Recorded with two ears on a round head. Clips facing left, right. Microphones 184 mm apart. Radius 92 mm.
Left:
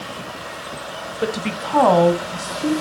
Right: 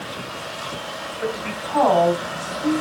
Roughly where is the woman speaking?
Left.